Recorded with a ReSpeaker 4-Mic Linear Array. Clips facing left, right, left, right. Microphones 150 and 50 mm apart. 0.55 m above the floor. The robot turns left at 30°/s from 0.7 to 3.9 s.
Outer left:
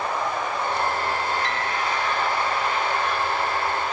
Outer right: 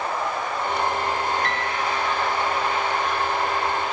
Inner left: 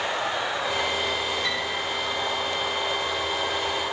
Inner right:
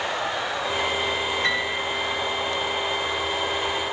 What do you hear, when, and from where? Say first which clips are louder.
1.4 s a piano: outer right 1 dB, inner right 4 dB; 55° right (ahead or behind), 2.5 m; by 1.7 s 45° right (ahead or behind), 2.5 m